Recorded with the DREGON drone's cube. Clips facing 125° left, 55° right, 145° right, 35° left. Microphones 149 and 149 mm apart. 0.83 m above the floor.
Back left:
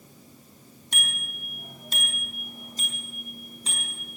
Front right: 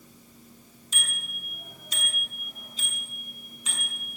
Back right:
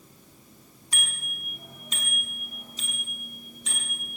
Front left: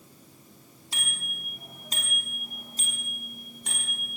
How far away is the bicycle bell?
About 5 m.